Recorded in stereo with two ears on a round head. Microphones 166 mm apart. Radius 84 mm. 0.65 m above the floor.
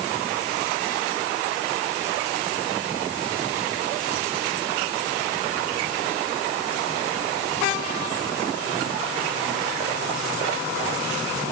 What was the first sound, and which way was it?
Only background noise.